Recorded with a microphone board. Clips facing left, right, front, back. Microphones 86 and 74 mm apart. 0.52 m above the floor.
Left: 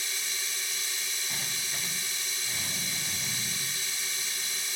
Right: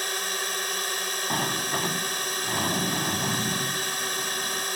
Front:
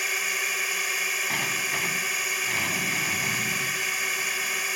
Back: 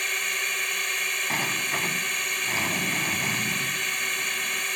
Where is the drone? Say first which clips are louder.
Right 9 dB, even; 85° right.